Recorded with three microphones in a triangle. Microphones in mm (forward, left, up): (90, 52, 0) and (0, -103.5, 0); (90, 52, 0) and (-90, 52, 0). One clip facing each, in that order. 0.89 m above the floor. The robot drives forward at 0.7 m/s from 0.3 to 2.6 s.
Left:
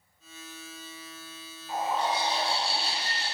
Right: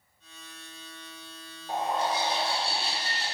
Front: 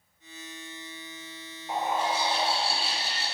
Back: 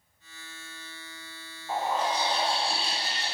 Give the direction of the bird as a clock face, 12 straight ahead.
2 o'clock.